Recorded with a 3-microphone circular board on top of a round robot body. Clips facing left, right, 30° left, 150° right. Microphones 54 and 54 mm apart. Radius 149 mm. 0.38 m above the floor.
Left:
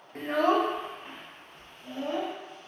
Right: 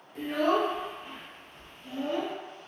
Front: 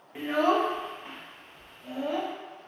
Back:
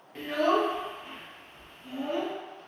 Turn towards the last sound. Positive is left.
turn(degrees=45)